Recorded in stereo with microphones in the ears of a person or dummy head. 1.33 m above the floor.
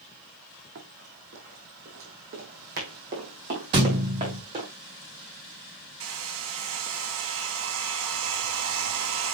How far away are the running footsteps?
About 3 m.